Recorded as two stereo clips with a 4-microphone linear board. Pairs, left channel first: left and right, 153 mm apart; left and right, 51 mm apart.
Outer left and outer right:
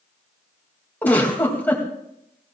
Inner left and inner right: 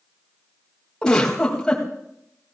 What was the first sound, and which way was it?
A giggle, 10° left (ahead or behind).